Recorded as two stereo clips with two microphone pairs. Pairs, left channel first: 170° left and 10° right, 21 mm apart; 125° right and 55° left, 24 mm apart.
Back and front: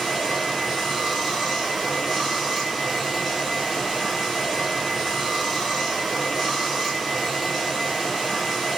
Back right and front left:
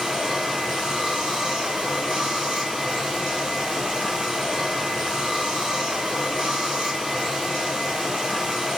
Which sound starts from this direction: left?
Running water, at 0.0 s.